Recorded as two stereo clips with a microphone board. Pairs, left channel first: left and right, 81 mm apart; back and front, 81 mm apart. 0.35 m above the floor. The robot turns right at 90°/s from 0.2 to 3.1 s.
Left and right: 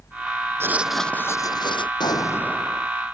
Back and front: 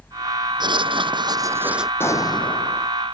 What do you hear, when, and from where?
0.6 s writing: 30° right; by 1.9 s 85° left
2.0 s an explosion: 115° left; by 2.9 s 160° right